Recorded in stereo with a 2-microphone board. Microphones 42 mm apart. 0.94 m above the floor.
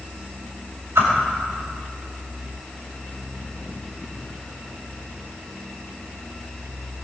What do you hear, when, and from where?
0.9 s a whoosh: 80° right, 5 m